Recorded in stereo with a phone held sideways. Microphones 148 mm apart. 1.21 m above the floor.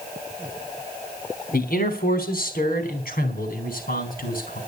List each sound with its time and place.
1.5 s a man speaking: 85° left, 3 m; by 4.6 s 75° left (ahead or behind), 5 m